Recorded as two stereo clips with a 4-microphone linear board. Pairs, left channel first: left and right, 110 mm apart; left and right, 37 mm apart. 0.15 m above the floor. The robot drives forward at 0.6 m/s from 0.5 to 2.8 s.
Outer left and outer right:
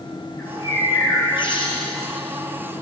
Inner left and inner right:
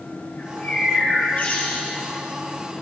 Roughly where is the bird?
Left.